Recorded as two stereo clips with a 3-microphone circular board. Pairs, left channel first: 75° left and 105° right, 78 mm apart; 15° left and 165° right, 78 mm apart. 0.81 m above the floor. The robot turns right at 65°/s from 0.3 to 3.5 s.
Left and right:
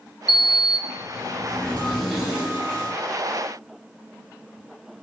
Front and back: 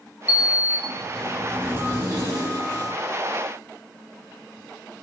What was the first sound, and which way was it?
A sliding door, 50° left.